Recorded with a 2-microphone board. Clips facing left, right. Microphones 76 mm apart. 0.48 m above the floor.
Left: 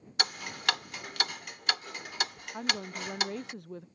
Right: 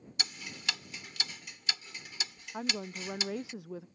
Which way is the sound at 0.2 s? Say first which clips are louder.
Left 9 dB; 50° left (ahead or behind).